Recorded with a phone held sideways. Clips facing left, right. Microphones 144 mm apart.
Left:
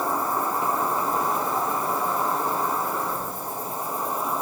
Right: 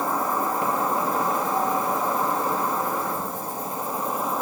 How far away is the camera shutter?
I don't hear a camera shutter.